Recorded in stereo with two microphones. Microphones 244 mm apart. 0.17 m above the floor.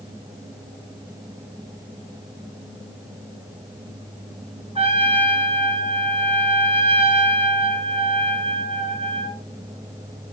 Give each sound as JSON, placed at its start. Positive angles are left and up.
{"t": 4.8, "sound": "a trumpet", "side_deg": -25, "distance_m": 1.6}